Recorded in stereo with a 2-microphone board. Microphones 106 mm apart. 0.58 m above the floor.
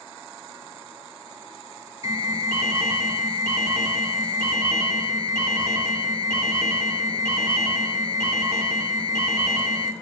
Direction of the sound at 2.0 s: 30° right (ahead or behind).